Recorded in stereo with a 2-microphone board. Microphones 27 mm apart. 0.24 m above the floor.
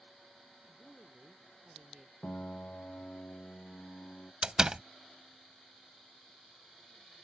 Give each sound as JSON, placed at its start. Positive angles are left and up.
{"t": 0.7, "sound": "a woman speaking", "side_deg": -15}
{"t": 2.2, "sound": "a piano", "side_deg": 70}
{"t": 4.4, "sound": "a door slam", "side_deg": -25}